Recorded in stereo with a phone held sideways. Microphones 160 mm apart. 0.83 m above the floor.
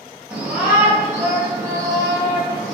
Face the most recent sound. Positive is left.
turn(degrees=-20)  # may be behind; listen again after turning